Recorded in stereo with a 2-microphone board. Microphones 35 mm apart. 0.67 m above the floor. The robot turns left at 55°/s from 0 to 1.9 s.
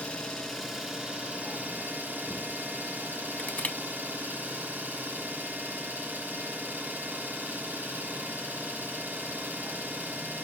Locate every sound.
0.0 s an engine running: 40° left, 2 m; by 10.4 s 65° right, 2 m
3.4 s crushing: 45° left (ahead or behind), 0.8 m